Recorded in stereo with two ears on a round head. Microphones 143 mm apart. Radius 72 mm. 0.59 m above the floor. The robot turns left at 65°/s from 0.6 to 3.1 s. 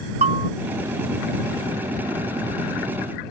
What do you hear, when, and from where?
0.2 s a bell: 40° right (ahead or behind)